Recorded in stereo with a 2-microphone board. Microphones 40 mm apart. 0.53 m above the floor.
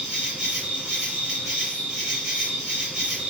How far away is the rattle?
No rattle in this recording.